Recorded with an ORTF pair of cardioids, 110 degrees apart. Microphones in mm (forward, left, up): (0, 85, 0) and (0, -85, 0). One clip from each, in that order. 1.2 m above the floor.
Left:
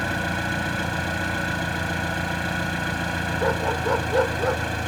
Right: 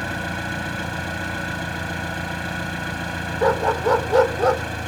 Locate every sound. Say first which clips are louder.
0.0 s an engine running: left 1 dB; 5° left
3.4 s a dog barking: right 6 dB; 40° right